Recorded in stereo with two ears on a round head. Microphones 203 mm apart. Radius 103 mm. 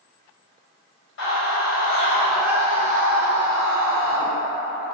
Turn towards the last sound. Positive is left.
turn(degrees=-70)  # may be behind; listen again after turning